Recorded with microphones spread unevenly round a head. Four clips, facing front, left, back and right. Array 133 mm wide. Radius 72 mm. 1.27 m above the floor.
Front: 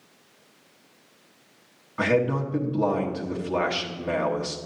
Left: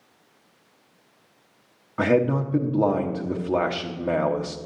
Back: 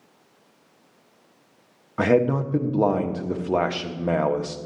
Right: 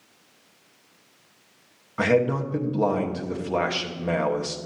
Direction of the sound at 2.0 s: 155° left.